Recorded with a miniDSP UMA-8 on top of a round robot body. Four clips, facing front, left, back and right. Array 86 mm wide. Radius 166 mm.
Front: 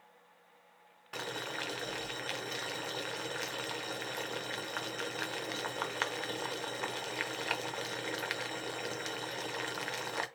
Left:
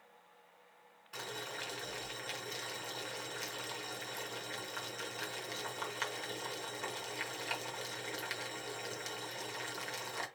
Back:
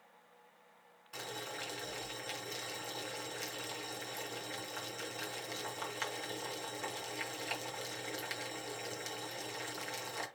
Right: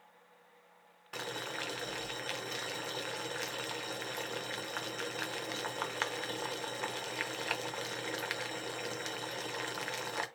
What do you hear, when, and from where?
1.1 s boiling: 35° right, 1.0 m